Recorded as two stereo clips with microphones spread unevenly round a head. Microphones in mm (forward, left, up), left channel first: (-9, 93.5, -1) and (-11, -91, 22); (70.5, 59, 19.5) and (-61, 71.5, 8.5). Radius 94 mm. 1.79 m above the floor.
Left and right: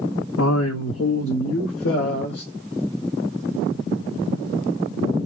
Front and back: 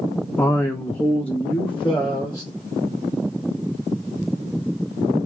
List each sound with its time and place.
0.4 s a man speaking: 70° left, 0.5 m; by 2.5 s 75° left, 1.7 m